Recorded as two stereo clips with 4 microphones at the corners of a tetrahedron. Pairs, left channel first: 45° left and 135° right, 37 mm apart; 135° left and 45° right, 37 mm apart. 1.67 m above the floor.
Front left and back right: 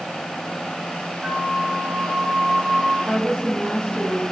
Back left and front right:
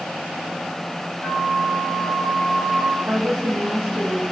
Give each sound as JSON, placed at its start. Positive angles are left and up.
{"t": 1.2, "sound": "a flute", "azimuth_deg": -45, "distance_m": 3.0}
{"t": 3.0, "sound": "a woman speaking", "azimuth_deg": -25, "distance_m": 3.0}